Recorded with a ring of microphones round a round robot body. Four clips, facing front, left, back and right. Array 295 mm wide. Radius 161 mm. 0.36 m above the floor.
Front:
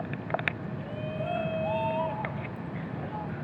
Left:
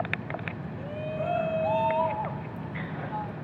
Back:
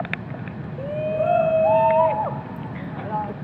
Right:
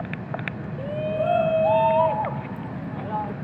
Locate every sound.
0.8 s a shout: 150° right